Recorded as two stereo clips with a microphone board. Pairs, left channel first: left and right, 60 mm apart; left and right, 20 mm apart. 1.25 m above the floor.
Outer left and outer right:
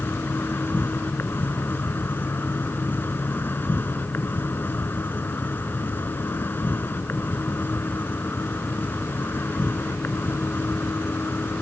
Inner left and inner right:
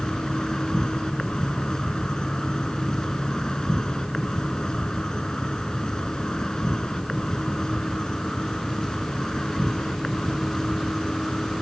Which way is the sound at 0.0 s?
30° left (ahead or behind).